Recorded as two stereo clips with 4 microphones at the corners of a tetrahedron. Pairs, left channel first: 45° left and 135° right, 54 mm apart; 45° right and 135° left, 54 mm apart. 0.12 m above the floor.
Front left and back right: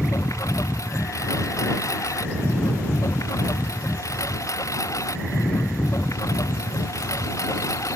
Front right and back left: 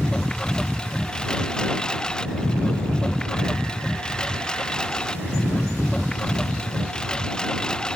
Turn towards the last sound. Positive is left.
turn(degrees=30)